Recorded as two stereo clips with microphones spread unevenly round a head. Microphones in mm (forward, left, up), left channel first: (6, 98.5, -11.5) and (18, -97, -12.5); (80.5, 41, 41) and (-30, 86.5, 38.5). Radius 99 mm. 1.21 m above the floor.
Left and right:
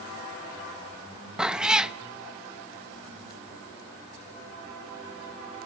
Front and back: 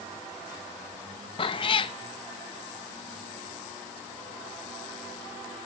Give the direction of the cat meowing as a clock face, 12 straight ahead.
12 o'clock.